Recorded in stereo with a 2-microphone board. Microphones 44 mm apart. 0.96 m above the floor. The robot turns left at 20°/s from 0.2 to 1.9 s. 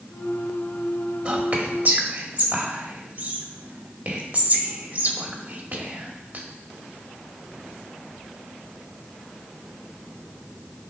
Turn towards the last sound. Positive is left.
turn(degrees=-45)  # may be behind; listen again after turning